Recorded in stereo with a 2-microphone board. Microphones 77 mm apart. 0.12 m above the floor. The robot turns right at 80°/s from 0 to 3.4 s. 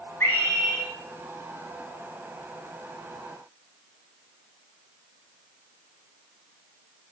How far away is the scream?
About 1.9 m.